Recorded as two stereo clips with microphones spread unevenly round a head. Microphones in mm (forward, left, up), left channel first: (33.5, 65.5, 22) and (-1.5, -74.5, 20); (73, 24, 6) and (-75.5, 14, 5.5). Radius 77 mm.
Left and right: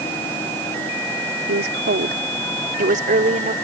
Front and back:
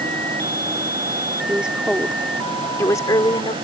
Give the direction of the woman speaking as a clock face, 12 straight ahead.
3 o'clock.